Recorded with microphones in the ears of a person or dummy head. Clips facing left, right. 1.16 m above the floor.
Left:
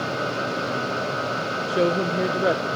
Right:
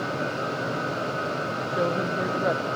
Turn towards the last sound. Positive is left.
turn(degrees=40)  # may be behind; listen again after turning